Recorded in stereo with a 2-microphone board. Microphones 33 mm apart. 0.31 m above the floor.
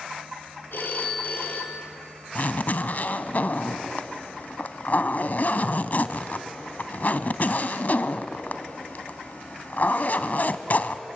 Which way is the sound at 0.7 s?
70° left (ahead or behind).